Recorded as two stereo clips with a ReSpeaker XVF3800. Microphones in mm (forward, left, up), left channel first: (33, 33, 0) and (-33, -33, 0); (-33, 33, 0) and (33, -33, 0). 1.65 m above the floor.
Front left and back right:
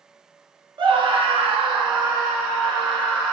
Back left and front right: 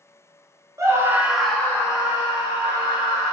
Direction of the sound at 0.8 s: 100° right.